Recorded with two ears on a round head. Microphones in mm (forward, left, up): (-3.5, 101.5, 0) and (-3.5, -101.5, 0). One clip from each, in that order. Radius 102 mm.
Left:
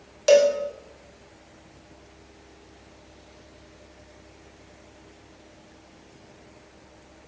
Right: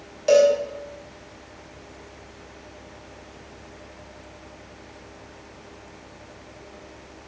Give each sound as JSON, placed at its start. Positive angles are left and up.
{"t": 0.3, "sound": "a cowbell", "side_deg": 45, "distance_m": 3.5}